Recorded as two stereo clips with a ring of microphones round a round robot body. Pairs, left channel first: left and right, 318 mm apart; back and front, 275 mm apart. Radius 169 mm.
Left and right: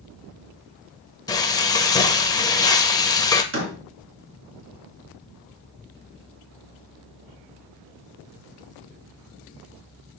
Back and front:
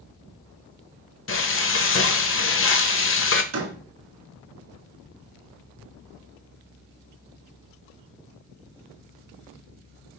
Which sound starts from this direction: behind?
Frying, at 1.3 s.